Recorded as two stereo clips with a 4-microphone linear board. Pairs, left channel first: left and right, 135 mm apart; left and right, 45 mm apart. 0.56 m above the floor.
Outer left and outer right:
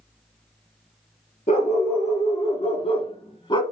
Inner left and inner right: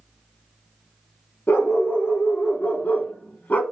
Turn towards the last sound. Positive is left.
turn(degrees=35)  # may be behind; listen again after turning